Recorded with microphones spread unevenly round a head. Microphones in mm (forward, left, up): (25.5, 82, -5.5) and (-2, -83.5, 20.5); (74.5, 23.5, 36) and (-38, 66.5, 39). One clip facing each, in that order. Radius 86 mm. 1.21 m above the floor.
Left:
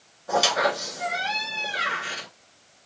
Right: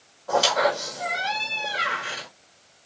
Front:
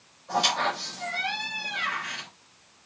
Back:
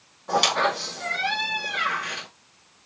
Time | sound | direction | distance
0.3 | a squeak | 160° left | 3.5 m